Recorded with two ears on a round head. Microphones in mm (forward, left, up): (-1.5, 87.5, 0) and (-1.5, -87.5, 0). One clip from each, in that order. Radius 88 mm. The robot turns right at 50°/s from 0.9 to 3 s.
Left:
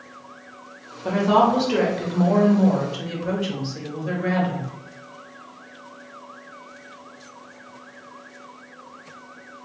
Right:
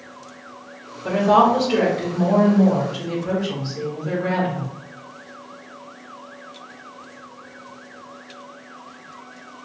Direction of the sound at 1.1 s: 25° left.